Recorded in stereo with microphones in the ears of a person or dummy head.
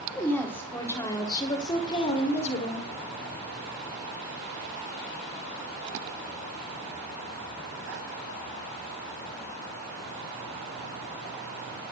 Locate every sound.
0.1 s a woman speaking: 5° left (ahead or behind), 4 m; by 2.9 s 40° left (ahead or behind), 4 m